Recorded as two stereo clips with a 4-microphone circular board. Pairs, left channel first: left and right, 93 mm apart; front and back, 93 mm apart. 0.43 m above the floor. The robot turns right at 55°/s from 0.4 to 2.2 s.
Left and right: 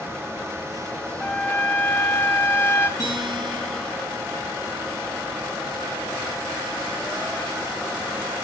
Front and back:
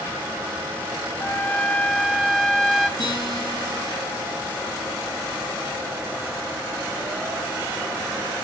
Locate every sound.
1.2 s a trumpet: 25° left, 1.0 m; by 2.9 s 80° left, 1.0 m
3.0 s a guitar: 45° right, 5 m